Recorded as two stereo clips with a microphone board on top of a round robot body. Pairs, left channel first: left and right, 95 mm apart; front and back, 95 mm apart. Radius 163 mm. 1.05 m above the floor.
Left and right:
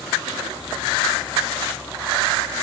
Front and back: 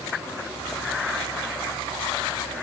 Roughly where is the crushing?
No crushing in this recording.